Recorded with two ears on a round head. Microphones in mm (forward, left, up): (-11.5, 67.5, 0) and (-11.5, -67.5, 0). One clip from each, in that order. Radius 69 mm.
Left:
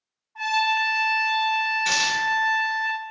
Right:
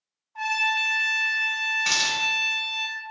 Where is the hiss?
25° right (ahead or behind), 0.9 m.